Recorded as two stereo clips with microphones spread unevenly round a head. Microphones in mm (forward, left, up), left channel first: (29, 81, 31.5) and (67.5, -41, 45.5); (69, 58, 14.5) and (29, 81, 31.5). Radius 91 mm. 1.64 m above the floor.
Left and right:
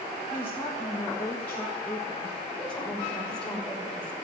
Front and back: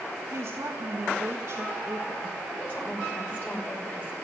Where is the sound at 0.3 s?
170° right, 1.5 m.